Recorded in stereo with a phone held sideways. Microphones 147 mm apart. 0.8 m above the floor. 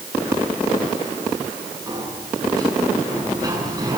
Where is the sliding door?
25° right (ahead or behind), 7.5 m.